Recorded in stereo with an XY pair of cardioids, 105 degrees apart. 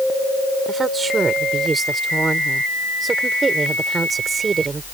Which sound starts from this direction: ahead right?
A woman speaking, at 0.7 s.